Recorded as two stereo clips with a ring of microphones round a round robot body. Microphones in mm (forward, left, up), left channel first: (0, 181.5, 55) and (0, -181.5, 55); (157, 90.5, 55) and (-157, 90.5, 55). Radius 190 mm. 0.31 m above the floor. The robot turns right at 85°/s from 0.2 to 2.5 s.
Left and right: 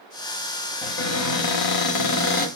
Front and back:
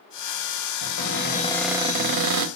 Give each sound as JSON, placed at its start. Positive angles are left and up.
{"t": 0.8, "sound": "a cupboard door", "azimuth_deg": 20, "distance_m": 1.1}